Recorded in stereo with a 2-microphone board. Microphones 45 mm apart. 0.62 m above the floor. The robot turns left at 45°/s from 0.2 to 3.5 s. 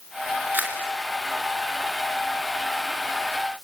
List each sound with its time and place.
0.5 s a camera shutter: 40° right (ahead or behind), 3 m; by 0.8 s 50° right (ahead or behind), 3 m